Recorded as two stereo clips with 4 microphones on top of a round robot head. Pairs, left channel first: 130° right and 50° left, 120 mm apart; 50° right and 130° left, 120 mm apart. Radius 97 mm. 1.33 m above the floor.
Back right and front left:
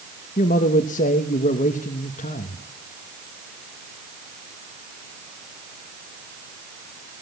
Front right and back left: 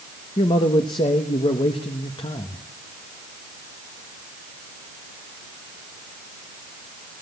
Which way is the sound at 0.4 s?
100° right.